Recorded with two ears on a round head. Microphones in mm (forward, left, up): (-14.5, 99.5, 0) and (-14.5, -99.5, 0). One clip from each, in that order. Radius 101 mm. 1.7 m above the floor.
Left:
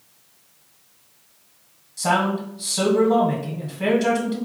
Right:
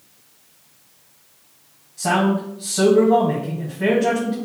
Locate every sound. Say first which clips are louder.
2.0 s a man speaking: right 1 dB; 40° left (ahead or behind), 1.1 m